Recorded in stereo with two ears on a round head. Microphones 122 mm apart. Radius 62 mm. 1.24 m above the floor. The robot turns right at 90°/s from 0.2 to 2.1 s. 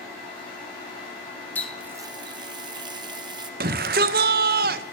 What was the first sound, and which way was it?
A running tap, 165° left.